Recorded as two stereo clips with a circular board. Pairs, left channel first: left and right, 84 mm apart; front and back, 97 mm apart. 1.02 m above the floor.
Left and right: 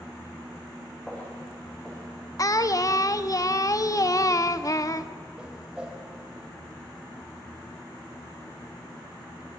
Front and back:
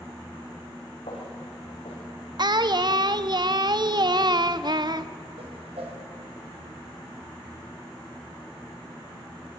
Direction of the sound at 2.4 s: 135° left.